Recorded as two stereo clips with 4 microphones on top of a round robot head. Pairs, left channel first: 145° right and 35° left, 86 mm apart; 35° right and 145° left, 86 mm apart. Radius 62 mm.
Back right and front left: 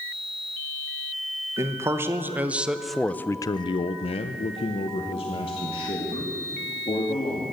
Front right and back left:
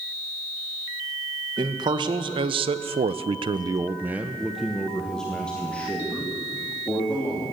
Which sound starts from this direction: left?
A man speaking, at 1.6 s.